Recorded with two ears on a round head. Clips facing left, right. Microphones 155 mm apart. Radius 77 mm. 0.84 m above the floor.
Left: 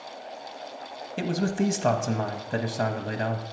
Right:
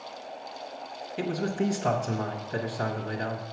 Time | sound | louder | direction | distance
1.2 | a man speaking | left 2 dB | 55° left (ahead or behind) | 1.0 m